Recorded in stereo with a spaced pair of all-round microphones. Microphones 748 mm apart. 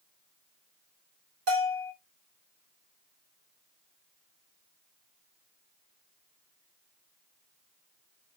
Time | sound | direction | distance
1.5 | a bell | 65° right (ahead or behind) | 1.6 m